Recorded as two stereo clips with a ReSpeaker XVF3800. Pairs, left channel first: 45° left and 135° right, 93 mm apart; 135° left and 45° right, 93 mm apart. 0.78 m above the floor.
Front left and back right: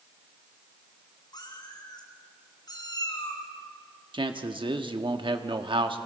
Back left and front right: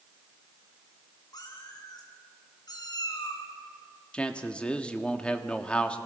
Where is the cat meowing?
90° left, 4 m.